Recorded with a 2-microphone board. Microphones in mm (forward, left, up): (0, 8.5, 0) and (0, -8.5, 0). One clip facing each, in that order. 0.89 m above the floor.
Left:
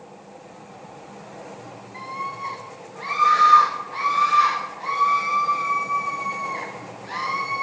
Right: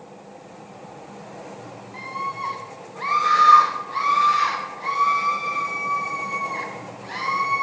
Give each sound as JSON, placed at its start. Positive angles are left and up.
{"t": 1.9, "sound": "a scream", "side_deg": -75, "distance_m": 2.5}